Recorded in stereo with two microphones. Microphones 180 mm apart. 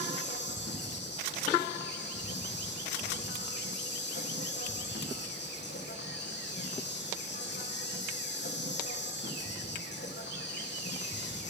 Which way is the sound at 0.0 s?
80° left.